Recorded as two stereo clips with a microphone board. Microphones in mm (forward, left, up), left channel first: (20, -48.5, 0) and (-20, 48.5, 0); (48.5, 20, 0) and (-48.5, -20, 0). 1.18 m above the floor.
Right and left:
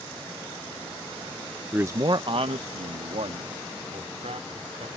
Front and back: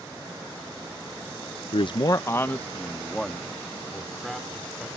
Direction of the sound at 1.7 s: 35° left.